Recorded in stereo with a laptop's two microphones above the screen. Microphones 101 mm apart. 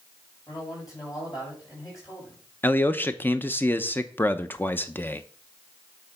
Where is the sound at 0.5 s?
40° left (ahead or behind), 5.5 m.